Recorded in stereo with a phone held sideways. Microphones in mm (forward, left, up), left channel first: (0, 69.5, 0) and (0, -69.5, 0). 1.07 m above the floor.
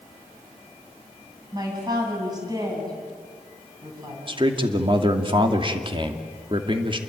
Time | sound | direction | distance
1.5 | a man speaking | 30° right (ahead or behind) | 8 m
4.3 | a man speaking | 40° right (ahead or behind) | 2.5 m